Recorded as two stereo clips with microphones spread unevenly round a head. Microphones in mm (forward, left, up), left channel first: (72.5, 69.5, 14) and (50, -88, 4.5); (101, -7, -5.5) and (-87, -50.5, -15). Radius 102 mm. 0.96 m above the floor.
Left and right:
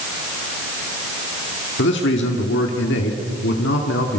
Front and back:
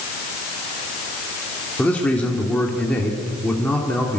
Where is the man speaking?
95° left, 2.5 m.